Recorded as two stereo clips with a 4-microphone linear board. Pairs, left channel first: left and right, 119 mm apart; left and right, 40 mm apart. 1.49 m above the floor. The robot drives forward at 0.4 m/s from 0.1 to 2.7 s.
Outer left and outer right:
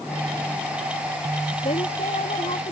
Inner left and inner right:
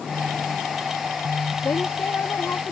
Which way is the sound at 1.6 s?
75° left (ahead or behind).